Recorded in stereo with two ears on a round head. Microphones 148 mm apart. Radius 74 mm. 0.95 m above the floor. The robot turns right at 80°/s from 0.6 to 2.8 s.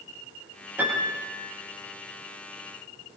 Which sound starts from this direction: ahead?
A piano, at 0.8 s.